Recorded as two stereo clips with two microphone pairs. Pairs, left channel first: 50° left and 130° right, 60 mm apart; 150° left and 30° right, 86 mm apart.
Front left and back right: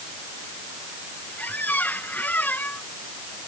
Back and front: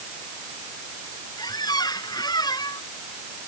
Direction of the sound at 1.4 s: 110° left.